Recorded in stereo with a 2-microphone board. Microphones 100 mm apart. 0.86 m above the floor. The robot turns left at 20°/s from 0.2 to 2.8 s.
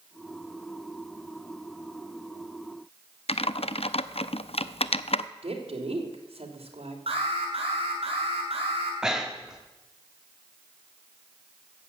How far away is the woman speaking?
About 2.5 m.